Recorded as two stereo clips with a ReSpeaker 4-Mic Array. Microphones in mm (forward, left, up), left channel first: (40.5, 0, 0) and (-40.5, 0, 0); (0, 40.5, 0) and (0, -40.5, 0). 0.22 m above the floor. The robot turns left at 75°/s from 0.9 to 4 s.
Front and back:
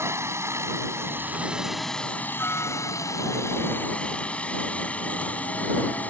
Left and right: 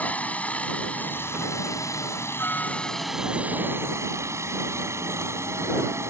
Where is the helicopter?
150° left; by 6.1 s 60° right.